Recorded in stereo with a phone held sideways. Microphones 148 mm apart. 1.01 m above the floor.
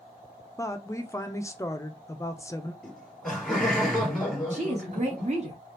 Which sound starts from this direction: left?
A woman speaking, at 0.6 s.